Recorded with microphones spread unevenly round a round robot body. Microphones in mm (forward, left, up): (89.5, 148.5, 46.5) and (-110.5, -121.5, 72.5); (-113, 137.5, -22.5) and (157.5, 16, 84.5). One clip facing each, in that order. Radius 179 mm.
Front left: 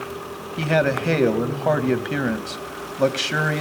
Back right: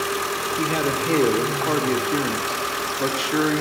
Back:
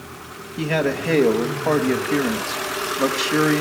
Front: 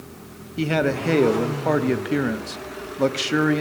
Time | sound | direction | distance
0.6 | a man speaking | 50° left | 3 m